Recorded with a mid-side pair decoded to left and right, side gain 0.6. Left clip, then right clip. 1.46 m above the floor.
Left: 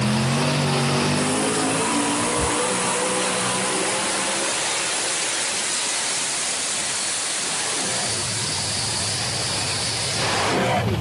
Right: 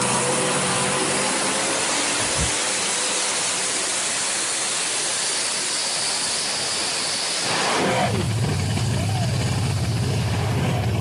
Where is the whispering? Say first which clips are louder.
Left 1 dB; 25° right, 0.7 m.